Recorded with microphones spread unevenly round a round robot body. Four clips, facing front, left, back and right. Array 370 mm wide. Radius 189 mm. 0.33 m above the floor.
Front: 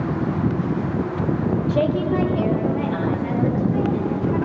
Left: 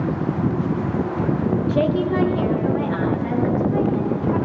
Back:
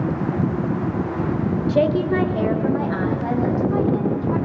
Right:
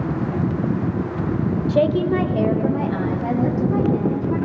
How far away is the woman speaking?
About 1.6 m.